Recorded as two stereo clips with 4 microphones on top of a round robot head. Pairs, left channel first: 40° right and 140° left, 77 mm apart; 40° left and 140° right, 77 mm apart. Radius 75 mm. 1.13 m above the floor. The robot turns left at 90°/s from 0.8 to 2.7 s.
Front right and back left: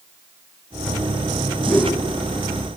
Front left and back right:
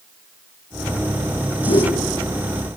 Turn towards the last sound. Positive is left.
turn(degrees=-50)